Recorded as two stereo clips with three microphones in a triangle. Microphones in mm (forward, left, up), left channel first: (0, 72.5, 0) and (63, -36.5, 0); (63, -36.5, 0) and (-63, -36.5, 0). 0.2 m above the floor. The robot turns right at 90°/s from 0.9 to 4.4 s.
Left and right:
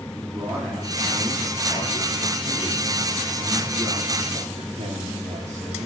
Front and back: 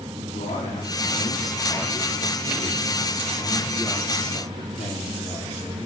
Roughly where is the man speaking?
Ahead.